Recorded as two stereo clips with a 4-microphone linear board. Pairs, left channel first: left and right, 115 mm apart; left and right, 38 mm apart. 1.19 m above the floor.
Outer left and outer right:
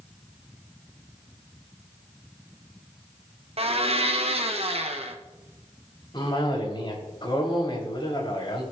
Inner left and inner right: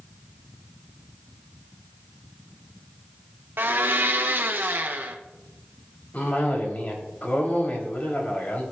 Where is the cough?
40° left (ahead or behind), 3.5 m.